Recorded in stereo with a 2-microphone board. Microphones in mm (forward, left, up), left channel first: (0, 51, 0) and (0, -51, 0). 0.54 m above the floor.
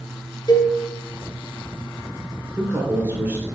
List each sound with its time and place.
0.5 s a cowbell: 40° left (ahead or behind), 1.1 m
2.6 s a man speaking: 20° right (ahead or behind), 2 m